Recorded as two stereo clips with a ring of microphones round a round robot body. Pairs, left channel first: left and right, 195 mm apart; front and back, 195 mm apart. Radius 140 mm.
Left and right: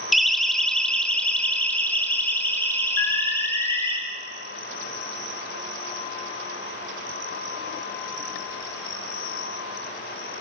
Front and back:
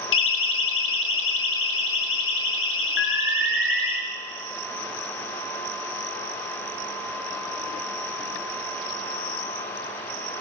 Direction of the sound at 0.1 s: Straight ahead.